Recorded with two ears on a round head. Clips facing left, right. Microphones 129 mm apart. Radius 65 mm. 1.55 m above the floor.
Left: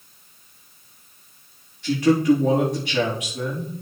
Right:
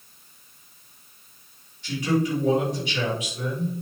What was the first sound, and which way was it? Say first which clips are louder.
A man speaking: left 7 dB; 50° left (ahead or behind).